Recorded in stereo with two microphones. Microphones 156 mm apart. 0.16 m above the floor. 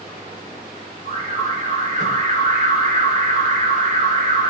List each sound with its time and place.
1.1 s an alarm: 50° right (ahead or behind), 3.5 m